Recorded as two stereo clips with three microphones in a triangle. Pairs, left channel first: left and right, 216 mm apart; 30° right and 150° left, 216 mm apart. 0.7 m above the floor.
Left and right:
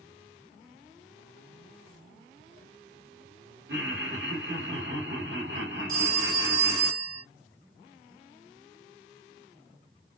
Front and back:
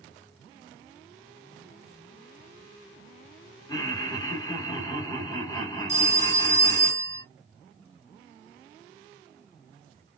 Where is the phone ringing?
70° right, 1.5 m.